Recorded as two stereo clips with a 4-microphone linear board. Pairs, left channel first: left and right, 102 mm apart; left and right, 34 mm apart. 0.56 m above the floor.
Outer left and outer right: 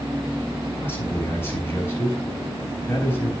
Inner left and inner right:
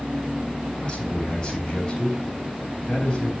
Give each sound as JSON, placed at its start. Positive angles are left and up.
{"t": 0.8, "sound": "a man speaking", "side_deg": 20, "distance_m": 4.0}